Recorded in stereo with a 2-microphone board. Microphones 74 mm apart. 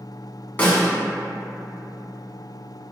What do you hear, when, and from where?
0.6 s a snare drum: 25° left (ahead or behind), 0.8 m